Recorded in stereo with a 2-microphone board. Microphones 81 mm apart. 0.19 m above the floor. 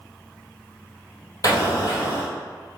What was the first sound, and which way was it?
An explosion, 55° left (ahead or behind).